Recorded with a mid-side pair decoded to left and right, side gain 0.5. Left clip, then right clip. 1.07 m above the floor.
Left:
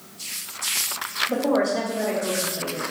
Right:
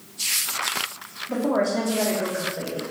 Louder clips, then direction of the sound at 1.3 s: Right 1 dB; 15° left.